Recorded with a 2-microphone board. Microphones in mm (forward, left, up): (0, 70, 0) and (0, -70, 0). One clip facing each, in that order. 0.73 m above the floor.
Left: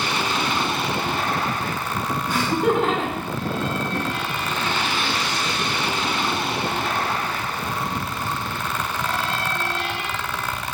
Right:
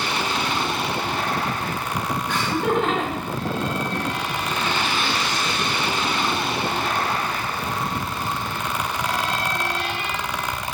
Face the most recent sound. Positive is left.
turn(degrees=-5)  # may be behind; listen again after turning